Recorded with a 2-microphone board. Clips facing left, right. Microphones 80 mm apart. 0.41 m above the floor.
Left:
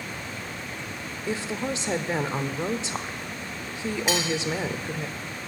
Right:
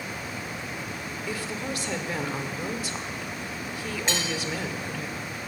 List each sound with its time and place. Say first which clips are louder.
1.3 s a woman speaking: left 4 dB; 25° left (ahead or behind), 0.9 m
4.1 s cutlery clinking: left 4 dB; 10° left (ahead or behind), 3.5 m